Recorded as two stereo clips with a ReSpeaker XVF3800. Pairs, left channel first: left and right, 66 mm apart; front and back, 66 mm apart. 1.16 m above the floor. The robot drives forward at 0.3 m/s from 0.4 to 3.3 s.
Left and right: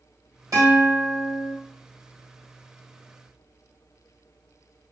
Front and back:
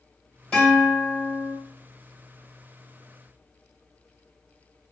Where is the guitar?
75° right, 1.6 m; by 1.5 s 85° right, 1.5 m.